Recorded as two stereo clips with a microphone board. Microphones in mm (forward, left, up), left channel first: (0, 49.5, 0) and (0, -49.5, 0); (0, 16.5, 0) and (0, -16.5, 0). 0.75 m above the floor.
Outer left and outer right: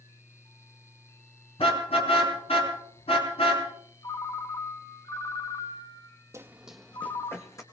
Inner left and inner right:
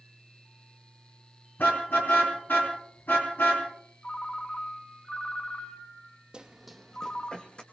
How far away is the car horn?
About 5 m.